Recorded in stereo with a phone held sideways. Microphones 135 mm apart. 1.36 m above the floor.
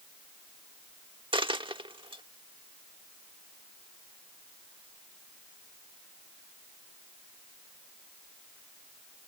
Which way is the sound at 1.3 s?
40° right (ahead or behind).